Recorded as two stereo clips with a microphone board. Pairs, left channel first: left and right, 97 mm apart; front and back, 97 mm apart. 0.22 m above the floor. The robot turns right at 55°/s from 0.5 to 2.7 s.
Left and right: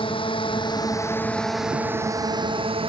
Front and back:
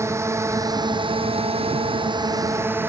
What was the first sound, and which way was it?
A drone, 120° left.